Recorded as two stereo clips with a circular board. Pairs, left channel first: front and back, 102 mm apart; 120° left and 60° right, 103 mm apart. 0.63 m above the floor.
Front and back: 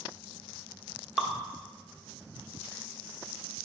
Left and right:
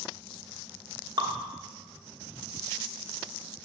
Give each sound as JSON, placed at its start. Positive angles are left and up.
{"t": 1.2, "sound": "dripping", "azimuth_deg": -95, "distance_m": 1.0}